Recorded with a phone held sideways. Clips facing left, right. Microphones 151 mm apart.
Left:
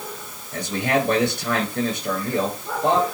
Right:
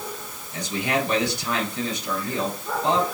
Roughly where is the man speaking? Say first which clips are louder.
Left 3 dB; left.